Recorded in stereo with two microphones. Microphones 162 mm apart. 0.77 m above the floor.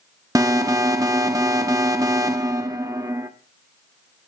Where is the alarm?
20° right (ahead or behind), 0.8 m.